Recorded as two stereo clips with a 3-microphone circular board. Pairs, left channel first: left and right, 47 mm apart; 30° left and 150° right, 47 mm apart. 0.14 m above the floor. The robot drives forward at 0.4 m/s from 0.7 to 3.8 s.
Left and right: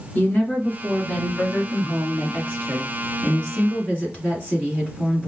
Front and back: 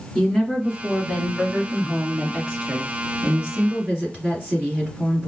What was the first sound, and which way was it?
A woman speaking, 115° left.